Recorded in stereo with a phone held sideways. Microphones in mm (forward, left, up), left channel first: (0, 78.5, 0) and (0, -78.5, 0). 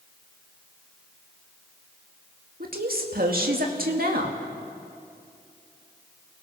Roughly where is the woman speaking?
Right.